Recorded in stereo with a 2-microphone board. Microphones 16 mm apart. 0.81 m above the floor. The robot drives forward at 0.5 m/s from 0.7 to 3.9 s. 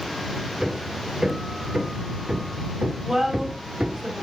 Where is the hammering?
30° right (ahead or behind), 2 m; by 4.0 s 80° right, 1.0 m.